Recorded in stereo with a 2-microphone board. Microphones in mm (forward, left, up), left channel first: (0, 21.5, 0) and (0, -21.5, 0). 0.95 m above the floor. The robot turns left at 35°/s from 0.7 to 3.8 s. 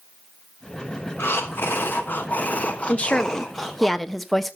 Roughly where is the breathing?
Left.